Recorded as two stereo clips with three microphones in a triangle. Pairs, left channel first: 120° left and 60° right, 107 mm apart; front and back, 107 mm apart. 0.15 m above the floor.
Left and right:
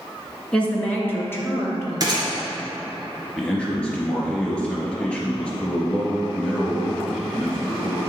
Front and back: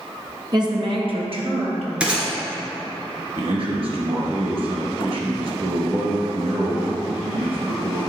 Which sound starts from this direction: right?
A gunshot, at 2.0 s.